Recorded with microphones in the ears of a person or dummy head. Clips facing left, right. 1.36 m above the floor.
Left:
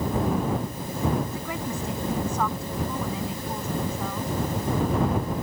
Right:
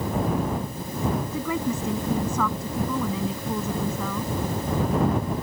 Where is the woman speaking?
75° right (ahead or behind).